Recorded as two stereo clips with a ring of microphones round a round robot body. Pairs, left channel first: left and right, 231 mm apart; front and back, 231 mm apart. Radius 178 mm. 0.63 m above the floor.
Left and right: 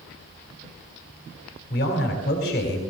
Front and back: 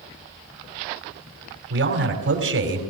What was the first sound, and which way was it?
A man speaking, 150° left.